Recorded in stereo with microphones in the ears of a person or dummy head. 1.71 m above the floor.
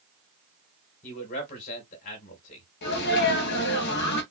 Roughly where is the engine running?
No engine running in this recording.